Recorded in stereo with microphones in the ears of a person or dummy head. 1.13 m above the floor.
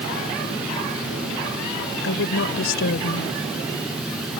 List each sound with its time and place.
2.0 s a woman speaking: 60° left (ahead or behind)